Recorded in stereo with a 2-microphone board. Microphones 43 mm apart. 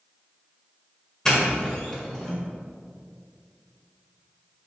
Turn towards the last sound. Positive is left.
turn(degrees=15)  # may be behind; listen again after turning